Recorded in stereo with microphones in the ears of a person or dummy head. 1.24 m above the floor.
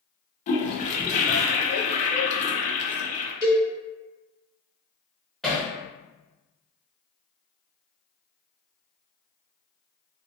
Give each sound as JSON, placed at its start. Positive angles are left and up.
{"t": 0.5, "sound": "a toilet flushing", "side_deg": 40, "distance_m": 0.5}
{"t": 3.4, "sound": "a cowbell", "side_deg": 50, "distance_m": 1.8}
{"t": 5.4, "sound": "hammering", "side_deg": 0, "distance_m": 0.7}